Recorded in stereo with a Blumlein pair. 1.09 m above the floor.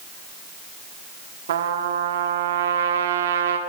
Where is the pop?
No pop in this recording.